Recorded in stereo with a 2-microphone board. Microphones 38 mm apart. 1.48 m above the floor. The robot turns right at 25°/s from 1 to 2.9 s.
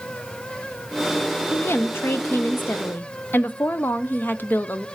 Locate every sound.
1.5 s a woman speaking: 90° left, 0.7 m; by 4.8 s 125° left, 0.7 m